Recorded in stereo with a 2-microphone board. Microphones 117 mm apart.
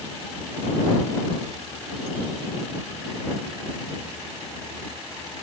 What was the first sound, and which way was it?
Only background noise.